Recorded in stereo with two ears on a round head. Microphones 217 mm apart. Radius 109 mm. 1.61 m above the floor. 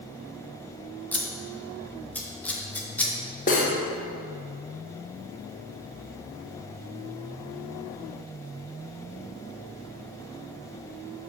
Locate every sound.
1.1 s scissors: 5° left (ahead or behind), 0.6 m
3.5 s cutlery clinking: 30° left (ahead or behind), 0.8 m